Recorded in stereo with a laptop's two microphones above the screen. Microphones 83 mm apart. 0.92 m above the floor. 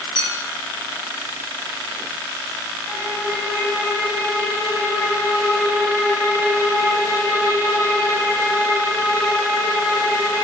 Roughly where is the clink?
Left.